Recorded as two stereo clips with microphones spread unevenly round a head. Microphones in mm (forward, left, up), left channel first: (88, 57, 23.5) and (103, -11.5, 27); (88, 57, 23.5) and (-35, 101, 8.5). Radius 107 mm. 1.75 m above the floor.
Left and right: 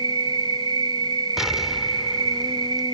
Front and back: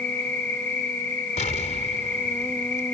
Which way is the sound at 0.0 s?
100° right.